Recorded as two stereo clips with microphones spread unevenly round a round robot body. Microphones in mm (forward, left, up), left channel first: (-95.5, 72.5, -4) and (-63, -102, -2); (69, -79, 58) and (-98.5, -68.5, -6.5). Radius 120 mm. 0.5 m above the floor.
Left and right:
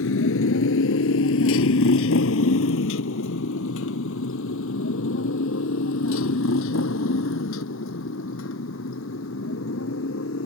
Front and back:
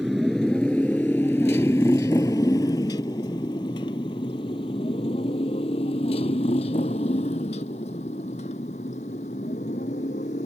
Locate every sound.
0.0 s a motorcycle: 85° left; by 10.5 s 55° left